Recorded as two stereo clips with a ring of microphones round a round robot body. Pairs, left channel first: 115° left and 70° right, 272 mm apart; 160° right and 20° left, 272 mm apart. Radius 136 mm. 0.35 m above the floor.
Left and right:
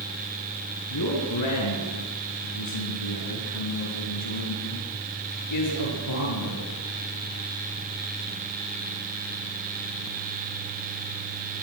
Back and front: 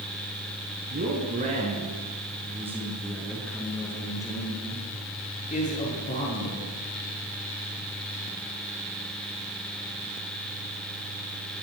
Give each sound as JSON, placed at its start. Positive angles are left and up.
{"t": 0.9, "sound": "a man speaking", "azimuth_deg": 80, "distance_m": 5.0}